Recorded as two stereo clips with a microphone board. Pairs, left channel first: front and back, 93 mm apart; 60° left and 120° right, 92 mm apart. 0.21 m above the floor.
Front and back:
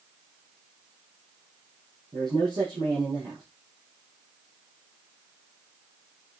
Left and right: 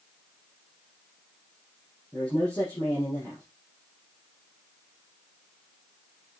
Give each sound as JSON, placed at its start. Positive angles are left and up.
{"t": 2.1, "sound": "a man speaking", "azimuth_deg": 130, "distance_m": 6.5}